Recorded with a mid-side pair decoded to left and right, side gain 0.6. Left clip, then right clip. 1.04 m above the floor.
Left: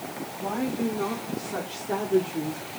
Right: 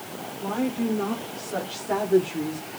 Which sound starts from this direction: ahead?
A woman speaking, at 0.4 s.